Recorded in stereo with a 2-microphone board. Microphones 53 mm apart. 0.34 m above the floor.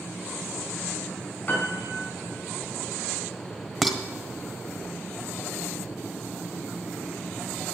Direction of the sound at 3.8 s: Centre (ahead or behind).